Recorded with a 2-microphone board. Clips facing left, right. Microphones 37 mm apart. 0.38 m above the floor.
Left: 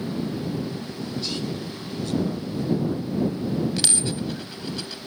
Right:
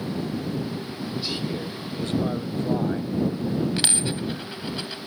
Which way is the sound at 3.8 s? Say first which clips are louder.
Even; 25° right (ahead or behind).